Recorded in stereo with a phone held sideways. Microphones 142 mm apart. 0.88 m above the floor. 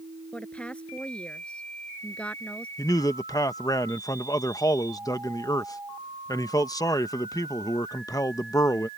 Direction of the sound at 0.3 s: 10° left (ahead or behind).